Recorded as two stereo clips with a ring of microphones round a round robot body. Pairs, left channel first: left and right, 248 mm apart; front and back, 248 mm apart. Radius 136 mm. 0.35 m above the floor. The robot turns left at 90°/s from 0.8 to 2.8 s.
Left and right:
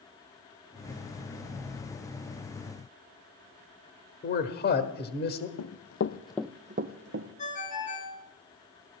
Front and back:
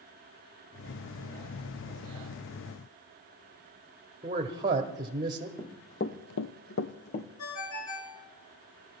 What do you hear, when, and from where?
4.2 s a man speaking: 110° left, 1.2 m
5.6 s running footsteps: 80° left, 1.0 m; by 7.3 s 55° right, 1.3 m
7.4 s a ringtone: 30° left, 3 m